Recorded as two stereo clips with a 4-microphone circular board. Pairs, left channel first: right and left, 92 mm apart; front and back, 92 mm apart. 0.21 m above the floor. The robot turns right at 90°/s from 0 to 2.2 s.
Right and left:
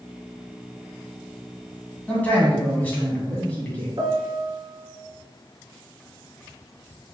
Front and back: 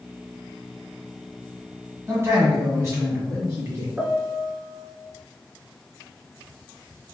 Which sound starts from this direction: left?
A piano, at 4.0 s.